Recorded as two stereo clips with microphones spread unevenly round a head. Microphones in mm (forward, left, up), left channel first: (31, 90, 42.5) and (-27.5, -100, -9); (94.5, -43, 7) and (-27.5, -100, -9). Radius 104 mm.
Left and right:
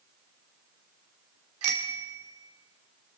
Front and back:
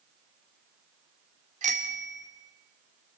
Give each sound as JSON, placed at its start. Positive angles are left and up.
{"t": 1.6, "sound": "a bicycle bell", "azimuth_deg": -130, "distance_m": 2.5}